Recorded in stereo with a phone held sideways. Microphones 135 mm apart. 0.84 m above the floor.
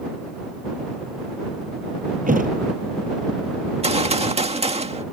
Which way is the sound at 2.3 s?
85° right.